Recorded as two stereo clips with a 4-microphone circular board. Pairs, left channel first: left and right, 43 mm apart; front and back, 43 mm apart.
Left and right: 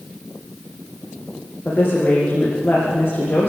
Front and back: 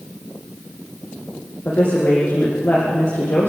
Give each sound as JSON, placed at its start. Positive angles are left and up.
{"t": 1.6, "sound": "a woman speaking", "azimuth_deg": 30, "distance_m": 5.0}